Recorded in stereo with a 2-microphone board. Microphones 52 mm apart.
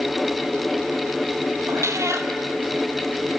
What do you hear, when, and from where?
1.7 s a cat meowing: 60° right (ahead or behind), 1.1 m